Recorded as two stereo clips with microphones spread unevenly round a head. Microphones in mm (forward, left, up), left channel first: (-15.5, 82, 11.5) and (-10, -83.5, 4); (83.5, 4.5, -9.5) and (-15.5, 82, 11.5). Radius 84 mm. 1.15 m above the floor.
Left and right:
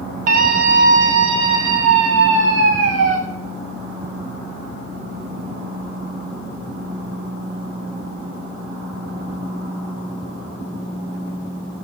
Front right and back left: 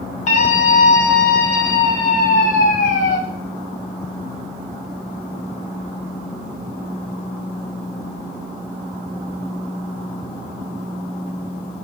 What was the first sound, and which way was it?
A scream, 50° right.